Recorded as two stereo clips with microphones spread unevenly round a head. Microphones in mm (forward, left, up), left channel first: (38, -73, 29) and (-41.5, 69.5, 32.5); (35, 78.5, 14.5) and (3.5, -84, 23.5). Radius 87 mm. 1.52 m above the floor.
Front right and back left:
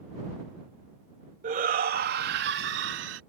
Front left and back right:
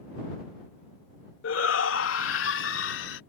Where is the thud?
No thud in this recording.